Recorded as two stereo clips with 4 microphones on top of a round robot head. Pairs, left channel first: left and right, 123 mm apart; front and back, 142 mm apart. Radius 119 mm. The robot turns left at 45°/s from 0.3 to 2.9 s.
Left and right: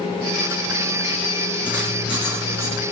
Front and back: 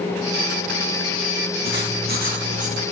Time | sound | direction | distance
1.6 | writing | 170° right | 3 m